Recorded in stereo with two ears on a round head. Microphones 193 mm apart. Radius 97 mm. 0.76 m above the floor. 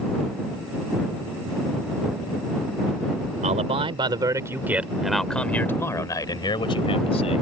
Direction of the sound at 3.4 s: 35° right (ahead or behind).